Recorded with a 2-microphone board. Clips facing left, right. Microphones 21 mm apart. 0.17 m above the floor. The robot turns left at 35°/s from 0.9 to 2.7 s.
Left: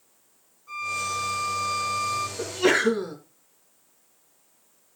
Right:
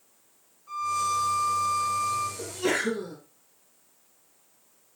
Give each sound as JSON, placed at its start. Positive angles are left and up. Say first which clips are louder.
{"t": 0.7, "sound": "a violin", "louder": "right 2 dB", "azimuth_deg": 175, "distance_m": 3.0}
{"t": 2.4, "sound": "a sneeze", "louder": "left 6 dB", "side_deg": 35, "distance_m": 2.0}